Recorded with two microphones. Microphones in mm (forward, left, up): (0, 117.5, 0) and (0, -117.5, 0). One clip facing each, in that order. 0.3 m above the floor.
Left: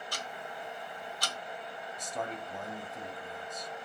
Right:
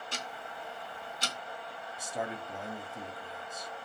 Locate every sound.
0.1 s ticking: 25° right (ahead or behind), 1.3 m
2.0 s a man speaking: 10° right (ahead or behind), 1.5 m